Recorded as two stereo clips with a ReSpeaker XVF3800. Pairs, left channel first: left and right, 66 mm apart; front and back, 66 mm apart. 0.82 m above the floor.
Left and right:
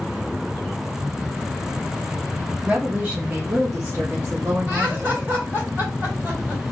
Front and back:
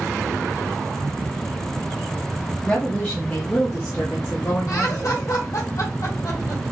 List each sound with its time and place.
2.6 s a woman speaking: 40° right, 0.8 m; by 5.2 s 60° right, 1.8 m
4.7 s laughter: 25° right, 2.0 m